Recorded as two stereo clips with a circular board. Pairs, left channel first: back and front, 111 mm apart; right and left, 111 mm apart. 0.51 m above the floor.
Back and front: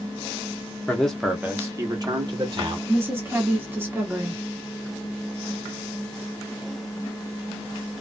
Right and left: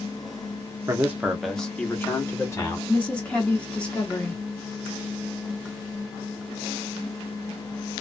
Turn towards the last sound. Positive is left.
turn(degrees=-30)